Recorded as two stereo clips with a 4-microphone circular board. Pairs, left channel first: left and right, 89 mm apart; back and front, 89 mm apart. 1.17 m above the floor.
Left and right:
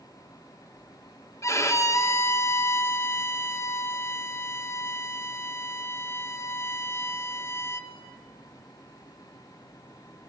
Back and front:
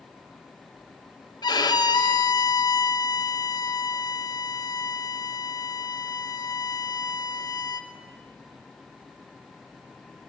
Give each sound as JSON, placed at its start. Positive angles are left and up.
{"t": 1.4, "sound": "a violin", "azimuth_deg": 145, "distance_m": 1.3}